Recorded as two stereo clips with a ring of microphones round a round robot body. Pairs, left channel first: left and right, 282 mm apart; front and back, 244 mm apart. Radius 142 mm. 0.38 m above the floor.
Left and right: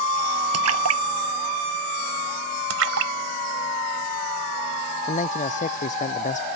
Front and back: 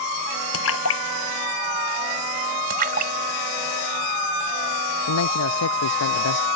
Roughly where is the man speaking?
Ahead left.